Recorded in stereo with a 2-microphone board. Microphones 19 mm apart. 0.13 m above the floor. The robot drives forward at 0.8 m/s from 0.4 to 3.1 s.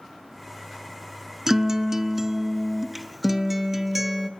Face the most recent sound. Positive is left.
turn(degrees=-15)  # may be behind; listen again after turning